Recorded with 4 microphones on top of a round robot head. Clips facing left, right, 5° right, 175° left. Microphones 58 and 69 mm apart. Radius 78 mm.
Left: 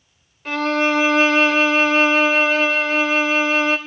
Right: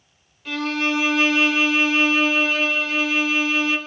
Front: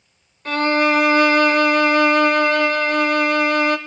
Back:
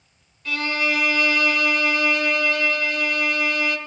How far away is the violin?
About 0.6 m.